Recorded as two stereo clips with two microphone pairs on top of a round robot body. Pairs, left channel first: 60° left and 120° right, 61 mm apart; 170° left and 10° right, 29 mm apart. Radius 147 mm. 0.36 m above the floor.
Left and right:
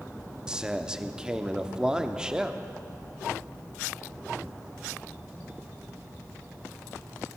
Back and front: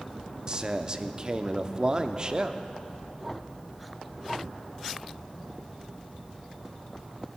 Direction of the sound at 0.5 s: 35° right.